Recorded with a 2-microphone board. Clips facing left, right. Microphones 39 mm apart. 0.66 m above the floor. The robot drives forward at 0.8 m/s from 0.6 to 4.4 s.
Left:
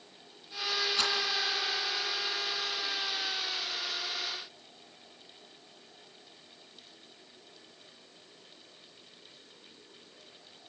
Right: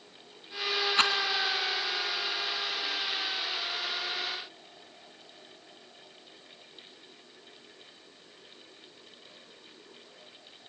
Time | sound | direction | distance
1.0 | a rattle | 45° right (ahead or behind) | 2.5 m